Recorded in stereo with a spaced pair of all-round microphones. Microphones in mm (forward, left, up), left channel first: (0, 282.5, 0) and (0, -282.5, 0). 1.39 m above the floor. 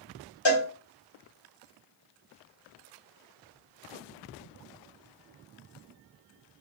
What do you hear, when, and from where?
0.5 s a cowbell: 50° left (ahead or behind), 0.9 m